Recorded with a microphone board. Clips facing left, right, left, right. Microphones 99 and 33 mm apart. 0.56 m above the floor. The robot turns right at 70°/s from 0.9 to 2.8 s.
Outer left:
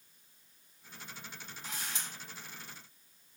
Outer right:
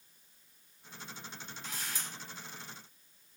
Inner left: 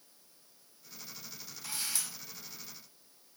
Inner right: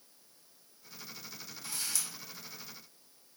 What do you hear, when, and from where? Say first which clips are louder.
1.6 s a camera shutter: outer left 1 dB, inner left 1 dB; 25° left (ahead or behind), 1.1 m; by 2.1 s 20° left (ahead or behind), 1.1 m